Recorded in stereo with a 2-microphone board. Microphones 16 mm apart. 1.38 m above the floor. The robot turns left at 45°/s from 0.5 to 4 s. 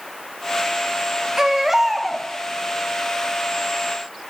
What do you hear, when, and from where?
1.4 s a baby crying: 145° right, 0.8 m; by 2.3 s 175° left, 0.8 m